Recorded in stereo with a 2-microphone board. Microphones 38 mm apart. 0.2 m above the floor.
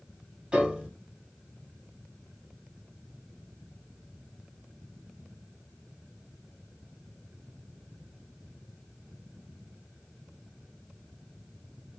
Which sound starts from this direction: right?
A piano, at 0.5 s.